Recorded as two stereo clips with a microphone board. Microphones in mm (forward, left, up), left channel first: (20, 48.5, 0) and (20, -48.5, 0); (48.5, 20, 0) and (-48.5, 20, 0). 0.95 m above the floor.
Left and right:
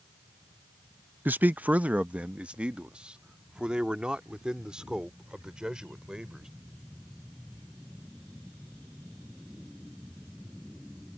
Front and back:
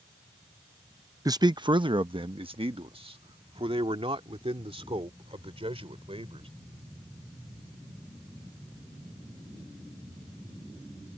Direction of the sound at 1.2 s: 155° right.